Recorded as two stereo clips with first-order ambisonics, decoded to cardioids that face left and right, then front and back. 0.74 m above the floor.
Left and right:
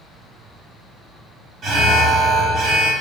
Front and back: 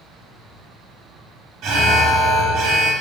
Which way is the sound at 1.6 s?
145° right.